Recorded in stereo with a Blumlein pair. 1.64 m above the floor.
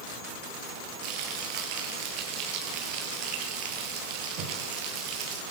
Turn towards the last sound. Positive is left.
turn(degrees=-45)